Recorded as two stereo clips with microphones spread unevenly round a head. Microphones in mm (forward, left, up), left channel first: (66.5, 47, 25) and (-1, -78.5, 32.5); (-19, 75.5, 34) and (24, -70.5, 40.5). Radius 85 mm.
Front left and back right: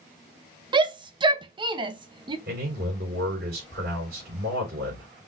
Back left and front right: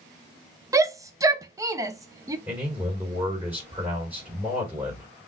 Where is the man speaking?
150° right, 3.5 m.